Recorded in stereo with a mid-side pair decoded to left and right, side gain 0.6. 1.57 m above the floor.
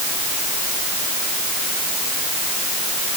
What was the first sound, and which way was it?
Only background noise.